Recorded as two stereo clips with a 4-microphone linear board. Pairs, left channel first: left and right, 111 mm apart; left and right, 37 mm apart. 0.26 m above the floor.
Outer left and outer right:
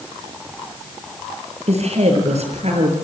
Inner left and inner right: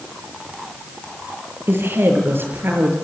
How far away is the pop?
No pop in this recording.